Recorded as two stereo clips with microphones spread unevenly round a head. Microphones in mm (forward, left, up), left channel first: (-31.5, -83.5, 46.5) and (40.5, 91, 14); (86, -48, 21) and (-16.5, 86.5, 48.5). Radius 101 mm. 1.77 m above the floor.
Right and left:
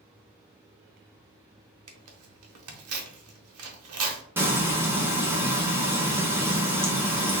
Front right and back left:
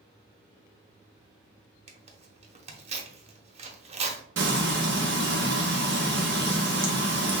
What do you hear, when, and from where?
1.9 s tearing paper: 75° left, 1.1 m
4.4 s frying: 150° left, 1.0 m